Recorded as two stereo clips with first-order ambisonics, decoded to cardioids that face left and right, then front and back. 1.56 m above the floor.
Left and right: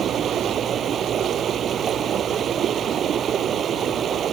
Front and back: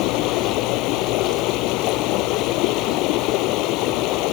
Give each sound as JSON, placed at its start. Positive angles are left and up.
{"t": 0.0, "sound": "running water", "azimuth_deg": -30}